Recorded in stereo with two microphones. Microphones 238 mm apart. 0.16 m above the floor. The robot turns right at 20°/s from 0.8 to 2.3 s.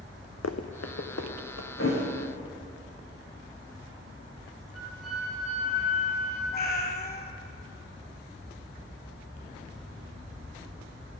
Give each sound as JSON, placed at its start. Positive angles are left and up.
{"t": 0.4, "sound": "running footsteps", "side_deg": 80, "distance_m": 0.7}
{"t": 1.8, "sound": "a thud", "side_deg": 60, "distance_m": 5.0}
{"t": 4.7, "sound": "a flute", "side_deg": 70, "distance_m": 4.5}
{"t": 6.5, "sound": "a cat meowing", "side_deg": 35, "distance_m": 0.6}